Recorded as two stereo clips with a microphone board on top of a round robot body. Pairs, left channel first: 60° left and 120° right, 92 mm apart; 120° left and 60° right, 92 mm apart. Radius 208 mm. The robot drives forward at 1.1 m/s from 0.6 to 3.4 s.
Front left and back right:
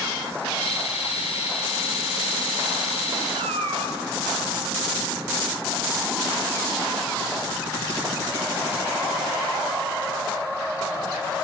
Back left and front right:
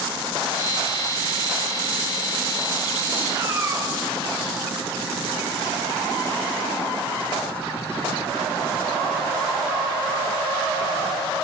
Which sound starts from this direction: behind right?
A cat meowing, at 3.4 s.